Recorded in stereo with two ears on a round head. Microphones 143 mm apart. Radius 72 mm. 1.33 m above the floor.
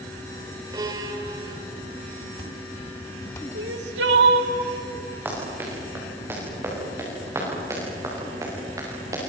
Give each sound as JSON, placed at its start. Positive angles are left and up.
{"t": 0.7, "sound": "a violin", "side_deg": -25, "distance_m": 2.5}
{"t": 3.5, "sound": "crying", "side_deg": -75, "distance_m": 2.0}
{"t": 5.2, "sound": "running footsteps", "side_deg": -10, "distance_m": 9.0}